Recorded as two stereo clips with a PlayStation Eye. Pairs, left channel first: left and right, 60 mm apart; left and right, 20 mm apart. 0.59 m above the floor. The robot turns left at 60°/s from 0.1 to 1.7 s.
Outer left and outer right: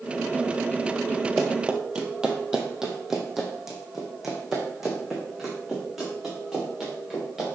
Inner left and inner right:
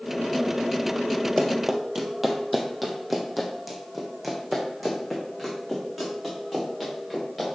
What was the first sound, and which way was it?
Running footsteps, 5° right (ahead or behind).